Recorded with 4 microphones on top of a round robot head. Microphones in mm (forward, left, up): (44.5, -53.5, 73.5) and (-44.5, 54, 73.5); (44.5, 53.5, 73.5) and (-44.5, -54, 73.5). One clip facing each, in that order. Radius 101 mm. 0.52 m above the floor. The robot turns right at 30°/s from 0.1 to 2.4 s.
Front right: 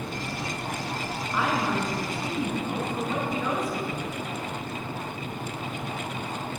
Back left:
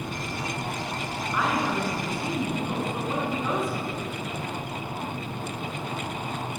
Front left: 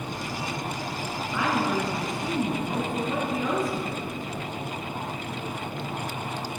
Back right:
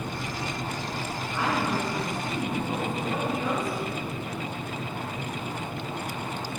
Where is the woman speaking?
35° left, 5 m; by 4.0 s 65° left, 5 m.